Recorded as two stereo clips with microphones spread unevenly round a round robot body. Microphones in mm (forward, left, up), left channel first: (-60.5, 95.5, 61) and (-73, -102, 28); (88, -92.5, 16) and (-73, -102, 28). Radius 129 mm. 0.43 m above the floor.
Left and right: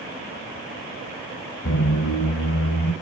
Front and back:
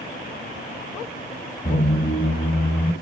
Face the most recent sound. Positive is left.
turn(degrees=55)